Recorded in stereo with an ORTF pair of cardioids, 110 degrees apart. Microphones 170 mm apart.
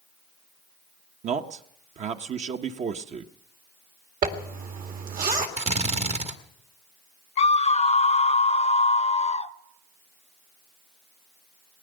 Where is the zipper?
55° right, 2 m.